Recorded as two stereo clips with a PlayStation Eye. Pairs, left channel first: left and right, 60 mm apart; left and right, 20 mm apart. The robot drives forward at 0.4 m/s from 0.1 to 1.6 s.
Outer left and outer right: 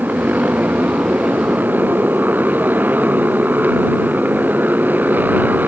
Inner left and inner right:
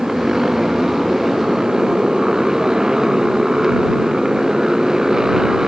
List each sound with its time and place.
0.0 s a motorcycle: 30° right (ahead or behind)